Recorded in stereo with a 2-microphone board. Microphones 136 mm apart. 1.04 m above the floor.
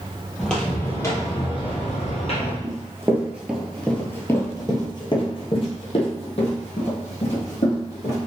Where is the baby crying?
I don't hear a baby crying.